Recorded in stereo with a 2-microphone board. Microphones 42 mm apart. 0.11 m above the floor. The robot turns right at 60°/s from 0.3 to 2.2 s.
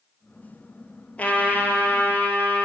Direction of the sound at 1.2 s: 40° left.